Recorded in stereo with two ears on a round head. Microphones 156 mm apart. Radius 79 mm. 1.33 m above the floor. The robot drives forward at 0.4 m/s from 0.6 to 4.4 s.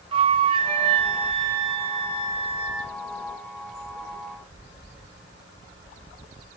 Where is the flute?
30° right (ahead or behind), 0.9 m.